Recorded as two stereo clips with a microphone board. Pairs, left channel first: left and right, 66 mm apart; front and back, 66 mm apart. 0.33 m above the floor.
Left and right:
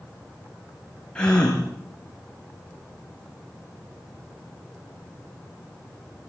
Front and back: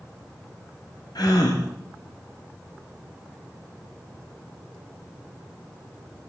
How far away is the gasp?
About 4 m.